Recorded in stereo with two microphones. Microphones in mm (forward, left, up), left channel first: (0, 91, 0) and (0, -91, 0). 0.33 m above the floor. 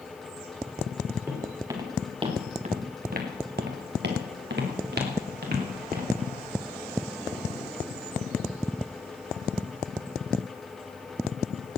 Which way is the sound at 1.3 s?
10° right (ahead or behind).